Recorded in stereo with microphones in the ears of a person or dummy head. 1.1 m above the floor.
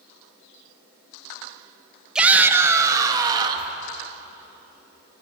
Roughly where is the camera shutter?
No camera shutter in this recording.